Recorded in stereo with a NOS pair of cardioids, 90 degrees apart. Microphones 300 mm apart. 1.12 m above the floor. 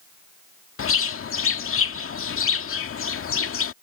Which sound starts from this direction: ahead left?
A bird, at 0.8 s.